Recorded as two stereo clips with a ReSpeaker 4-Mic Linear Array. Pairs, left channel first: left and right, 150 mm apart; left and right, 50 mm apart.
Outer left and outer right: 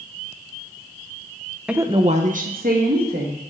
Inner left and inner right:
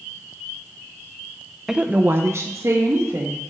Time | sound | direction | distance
1.7 | a woman speaking | 5° right (ahead or behind) | 0.5 m